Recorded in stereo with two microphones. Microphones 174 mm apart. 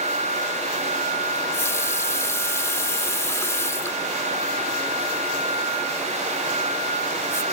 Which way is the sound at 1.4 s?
15° left (ahead or behind).